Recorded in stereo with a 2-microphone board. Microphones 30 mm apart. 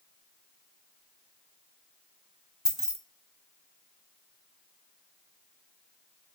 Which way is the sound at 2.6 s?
20° right (ahead or behind).